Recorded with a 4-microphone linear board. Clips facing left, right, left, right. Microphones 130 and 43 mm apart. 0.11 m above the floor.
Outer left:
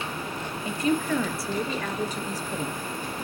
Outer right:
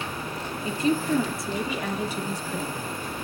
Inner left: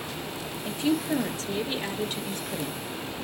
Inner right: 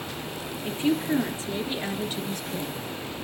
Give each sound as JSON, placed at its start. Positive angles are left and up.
{"t": 0.7, "sound": "a woman speaking", "side_deg": -35, "distance_m": 2.5}